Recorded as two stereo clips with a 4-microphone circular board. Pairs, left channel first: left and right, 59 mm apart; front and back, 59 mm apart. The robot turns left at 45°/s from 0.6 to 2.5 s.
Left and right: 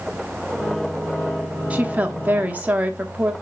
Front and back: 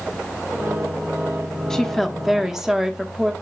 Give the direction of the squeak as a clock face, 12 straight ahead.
No squeak in this recording.